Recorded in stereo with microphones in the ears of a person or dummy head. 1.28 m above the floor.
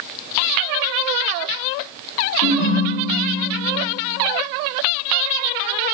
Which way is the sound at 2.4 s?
80° left.